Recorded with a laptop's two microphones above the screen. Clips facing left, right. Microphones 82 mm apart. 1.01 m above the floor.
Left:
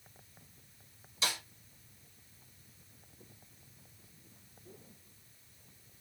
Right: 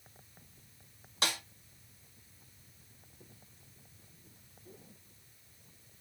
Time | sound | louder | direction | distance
1.2 | a snare drum | right 2 dB | 60° right (ahead or behind) | 2.5 m